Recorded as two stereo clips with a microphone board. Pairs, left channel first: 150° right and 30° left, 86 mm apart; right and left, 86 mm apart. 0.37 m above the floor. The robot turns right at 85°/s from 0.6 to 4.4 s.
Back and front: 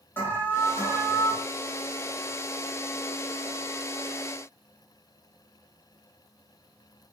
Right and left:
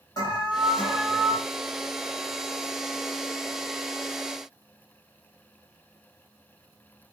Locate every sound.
0.2 s an alarm: 90° right, 3 m; by 1.4 s 25° right, 3 m